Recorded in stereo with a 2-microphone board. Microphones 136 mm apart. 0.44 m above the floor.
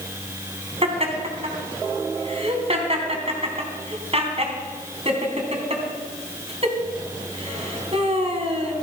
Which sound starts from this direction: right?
Laughter, at 0.8 s.